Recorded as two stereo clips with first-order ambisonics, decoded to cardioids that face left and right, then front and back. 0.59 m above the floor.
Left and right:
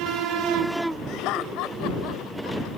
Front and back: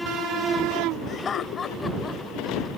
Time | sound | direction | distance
1.1 | laughter | 65° left | ?